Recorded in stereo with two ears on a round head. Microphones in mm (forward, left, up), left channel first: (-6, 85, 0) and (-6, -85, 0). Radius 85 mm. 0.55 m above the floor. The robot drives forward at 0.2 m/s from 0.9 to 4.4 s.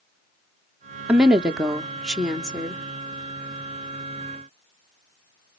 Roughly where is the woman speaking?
Centre.